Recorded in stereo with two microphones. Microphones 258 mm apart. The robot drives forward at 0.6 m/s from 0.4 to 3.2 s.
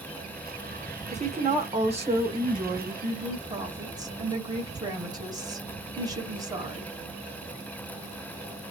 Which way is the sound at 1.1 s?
25° right (ahead or behind).